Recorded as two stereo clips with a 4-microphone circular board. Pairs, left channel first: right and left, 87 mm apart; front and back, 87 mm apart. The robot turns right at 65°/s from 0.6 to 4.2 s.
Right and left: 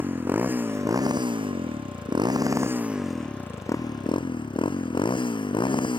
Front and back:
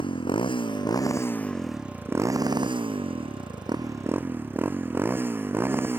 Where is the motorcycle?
20° left; by 6.0 s 115° right.